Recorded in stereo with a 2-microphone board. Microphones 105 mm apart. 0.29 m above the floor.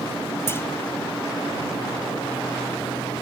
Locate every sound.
0.5 s a clunk: 25° left (ahead or behind)